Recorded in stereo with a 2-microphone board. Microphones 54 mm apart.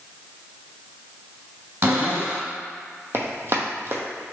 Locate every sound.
1.8 s a cupboard door: 45° right (ahead or behind), 1.6 m
3.1 s running footsteps: 45° right (ahead or behind), 0.8 m